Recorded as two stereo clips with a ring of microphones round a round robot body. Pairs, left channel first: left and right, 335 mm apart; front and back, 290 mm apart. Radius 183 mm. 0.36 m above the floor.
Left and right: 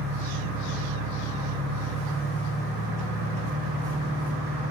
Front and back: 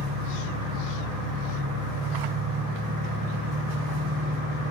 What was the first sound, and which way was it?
An engine running, 175° right.